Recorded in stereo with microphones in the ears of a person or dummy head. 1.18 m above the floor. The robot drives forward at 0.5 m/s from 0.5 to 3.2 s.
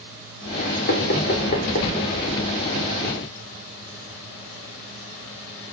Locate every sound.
0.9 s knocking: 55° left (ahead or behind), 3 m; by 1.9 s 50° left (ahead or behind), 3.5 m